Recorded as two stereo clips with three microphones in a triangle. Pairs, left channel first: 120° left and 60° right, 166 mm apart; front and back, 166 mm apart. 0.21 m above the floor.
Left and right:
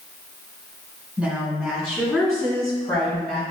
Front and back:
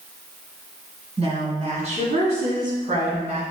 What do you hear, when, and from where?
1.2 s a woman speaking: 140° right, 2 m; by 3.4 s 150° left, 2 m